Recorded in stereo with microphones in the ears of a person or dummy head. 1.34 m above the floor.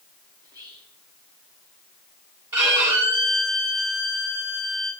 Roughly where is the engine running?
I don't hear an engine running.